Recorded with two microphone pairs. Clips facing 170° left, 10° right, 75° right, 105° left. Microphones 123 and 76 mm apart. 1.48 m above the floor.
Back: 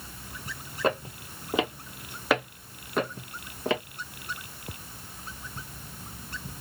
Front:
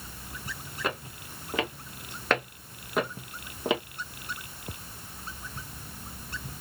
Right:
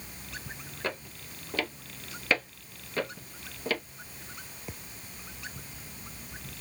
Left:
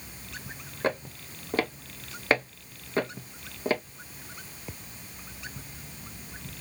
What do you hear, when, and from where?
0.8 s footsteps: 135° left, 1.8 m; by 3.8 s 55° left, 2.0 m